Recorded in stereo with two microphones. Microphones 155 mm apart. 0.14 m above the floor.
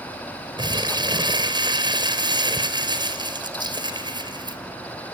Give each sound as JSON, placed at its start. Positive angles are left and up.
{"t": 0.6, "sound": "crumpling", "side_deg": -30, "distance_m": 2.0}